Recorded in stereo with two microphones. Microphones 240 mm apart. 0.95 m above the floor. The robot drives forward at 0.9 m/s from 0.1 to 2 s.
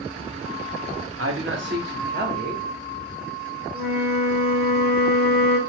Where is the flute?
40° right (ahead or behind), 1.1 m.